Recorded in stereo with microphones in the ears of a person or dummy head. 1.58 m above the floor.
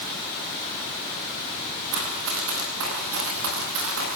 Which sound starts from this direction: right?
Running footsteps, at 1.9 s.